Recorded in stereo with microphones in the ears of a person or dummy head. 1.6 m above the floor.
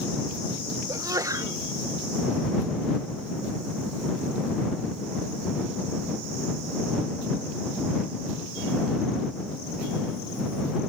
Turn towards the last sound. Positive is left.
turn(degrees=-20)  # may be behind; listen again after turning